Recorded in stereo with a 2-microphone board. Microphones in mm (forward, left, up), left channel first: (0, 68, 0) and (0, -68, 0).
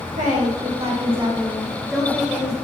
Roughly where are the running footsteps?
I don't hear running footsteps.